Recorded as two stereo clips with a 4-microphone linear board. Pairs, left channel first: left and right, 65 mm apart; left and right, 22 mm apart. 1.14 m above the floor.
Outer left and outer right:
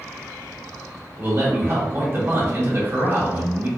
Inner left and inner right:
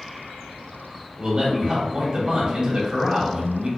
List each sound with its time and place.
1.2 s a man speaking: 35° right (ahead or behind), 1.8 m